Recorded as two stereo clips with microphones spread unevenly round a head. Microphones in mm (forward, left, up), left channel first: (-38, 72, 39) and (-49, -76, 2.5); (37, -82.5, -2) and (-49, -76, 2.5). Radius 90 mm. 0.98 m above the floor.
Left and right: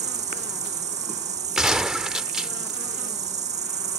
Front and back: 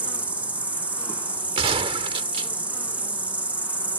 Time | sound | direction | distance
0.0 | an insect | 110° right | ?
1.6 | a gunshot | 175° left | ?